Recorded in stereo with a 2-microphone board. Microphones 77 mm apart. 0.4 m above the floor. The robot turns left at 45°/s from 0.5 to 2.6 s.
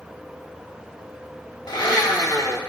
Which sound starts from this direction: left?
A blender, at 1.7 s.